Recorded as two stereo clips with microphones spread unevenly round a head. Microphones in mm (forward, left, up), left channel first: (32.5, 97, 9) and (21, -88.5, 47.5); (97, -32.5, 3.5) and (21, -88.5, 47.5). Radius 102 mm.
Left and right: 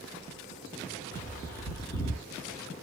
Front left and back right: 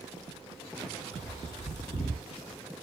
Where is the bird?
40° left, 2 m.